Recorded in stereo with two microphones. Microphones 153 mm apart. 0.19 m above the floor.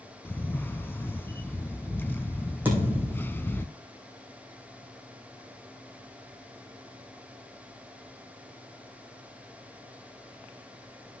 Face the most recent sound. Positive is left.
turn(degrees=-10)  # may be behind; listen again after turning